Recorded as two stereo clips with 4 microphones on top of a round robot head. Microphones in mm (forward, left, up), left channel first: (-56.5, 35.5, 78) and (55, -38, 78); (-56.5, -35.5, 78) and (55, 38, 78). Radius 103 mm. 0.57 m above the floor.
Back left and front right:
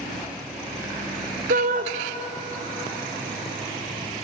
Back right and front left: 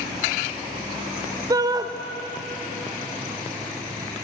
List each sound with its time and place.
1.5 s a shout: 30° right, 2 m